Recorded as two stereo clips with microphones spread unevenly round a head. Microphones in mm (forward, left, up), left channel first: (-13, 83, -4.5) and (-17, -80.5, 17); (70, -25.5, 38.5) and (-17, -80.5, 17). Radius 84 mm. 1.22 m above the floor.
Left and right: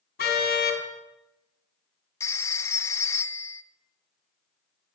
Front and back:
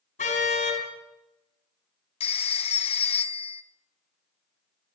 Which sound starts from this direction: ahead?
A phone ringing, at 2.2 s.